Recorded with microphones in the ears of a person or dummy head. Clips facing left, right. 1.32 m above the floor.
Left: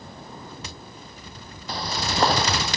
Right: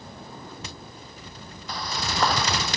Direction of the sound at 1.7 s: 30° left (ahead or behind).